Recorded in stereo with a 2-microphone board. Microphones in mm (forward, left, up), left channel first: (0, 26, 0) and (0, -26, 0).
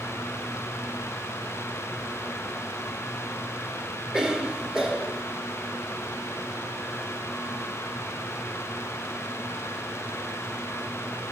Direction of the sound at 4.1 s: 15° right (ahead or behind).